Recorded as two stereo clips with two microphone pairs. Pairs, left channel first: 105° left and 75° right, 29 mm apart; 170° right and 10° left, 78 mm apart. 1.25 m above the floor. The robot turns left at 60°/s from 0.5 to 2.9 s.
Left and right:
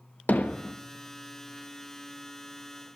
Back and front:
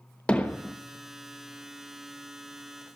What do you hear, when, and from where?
0.3 s hammering: 115° left, 1.2 m; by 0.8 s 100° left, 1.2 m